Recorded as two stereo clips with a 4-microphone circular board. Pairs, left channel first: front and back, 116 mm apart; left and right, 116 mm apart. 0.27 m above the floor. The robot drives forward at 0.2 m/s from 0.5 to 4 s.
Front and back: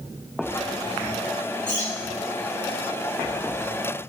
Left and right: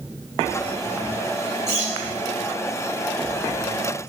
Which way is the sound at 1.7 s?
55° left.